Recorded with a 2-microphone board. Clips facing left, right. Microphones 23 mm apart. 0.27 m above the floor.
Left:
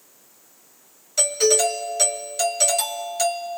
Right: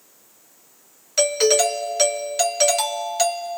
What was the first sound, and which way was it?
A doorbell, 20° right (ahead or behind).